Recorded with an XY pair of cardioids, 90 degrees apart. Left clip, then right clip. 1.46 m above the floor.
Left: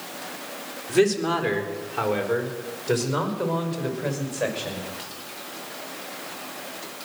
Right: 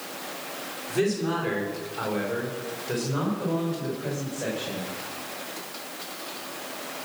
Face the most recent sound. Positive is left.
turn(degrees=75)